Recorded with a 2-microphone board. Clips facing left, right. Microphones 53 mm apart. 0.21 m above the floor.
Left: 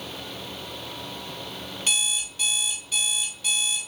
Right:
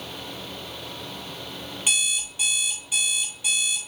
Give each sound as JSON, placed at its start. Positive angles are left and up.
{"t": 1.9, "sound": "an alarm clock", "side_deg": -15, "distance_m": 2.5}